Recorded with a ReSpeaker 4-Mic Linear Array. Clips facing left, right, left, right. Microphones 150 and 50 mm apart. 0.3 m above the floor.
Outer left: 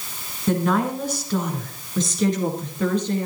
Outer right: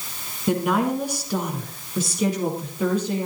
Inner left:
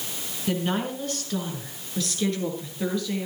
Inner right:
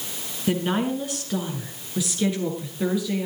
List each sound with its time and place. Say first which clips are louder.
0.5 s a woman speaking: even, inner right 3 dB; 15° right (ahead or behind), 3 m; by 3.2 s 5° right (ahead or behind), 5 m